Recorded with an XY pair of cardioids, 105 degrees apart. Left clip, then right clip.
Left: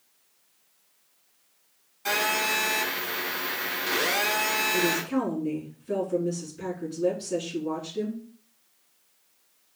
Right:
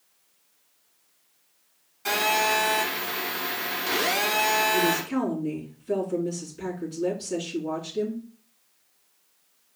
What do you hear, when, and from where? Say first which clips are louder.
2.0 s a phone buzzing: right 2 dB; 20° right, 3 m
4.7 s a woman speaking: right 1 dB; 15° right, 3 m